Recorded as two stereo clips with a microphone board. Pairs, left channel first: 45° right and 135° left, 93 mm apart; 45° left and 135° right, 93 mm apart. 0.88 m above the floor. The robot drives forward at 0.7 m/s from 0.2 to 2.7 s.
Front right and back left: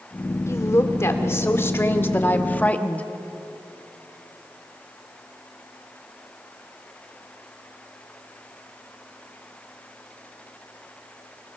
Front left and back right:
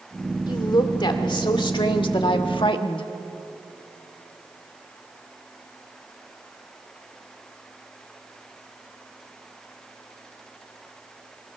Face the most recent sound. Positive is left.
turn(degrees=25)